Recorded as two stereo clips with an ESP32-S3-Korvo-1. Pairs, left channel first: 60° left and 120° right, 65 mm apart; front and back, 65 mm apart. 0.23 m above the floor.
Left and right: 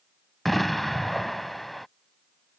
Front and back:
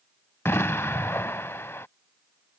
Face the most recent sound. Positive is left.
turn(degrees=-25)